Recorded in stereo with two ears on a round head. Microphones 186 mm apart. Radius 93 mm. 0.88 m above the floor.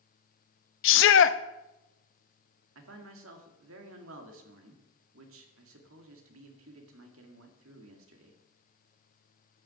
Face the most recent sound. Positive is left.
turn(degrees=-70)  # may be behind; listen again after turning